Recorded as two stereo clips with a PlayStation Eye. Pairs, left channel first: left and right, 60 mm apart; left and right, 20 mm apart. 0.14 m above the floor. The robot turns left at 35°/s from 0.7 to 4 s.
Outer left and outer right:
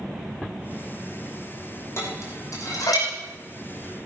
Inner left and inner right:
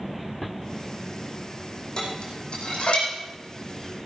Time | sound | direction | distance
2.0 | dishes clattering | 45° left (ahead or behind) | 4 m